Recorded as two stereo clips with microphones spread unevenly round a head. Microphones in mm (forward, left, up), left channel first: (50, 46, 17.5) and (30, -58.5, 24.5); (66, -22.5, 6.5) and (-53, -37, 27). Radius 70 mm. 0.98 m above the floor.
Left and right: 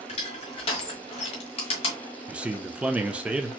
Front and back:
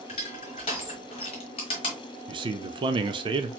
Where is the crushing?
60° left, 1.2 m.